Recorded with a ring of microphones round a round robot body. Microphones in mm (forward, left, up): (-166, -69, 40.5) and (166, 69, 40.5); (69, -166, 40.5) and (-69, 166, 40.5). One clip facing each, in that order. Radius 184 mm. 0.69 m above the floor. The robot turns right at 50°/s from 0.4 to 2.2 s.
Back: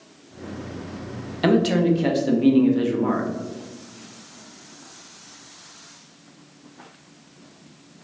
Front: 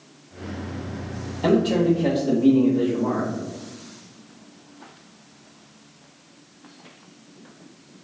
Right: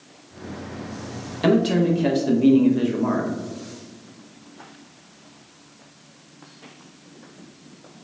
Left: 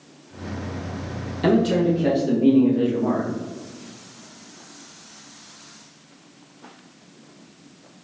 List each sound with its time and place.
1.4 s a man speaking: 155° right, 0.7 m; by 3.3 s 115° right, 0.7 m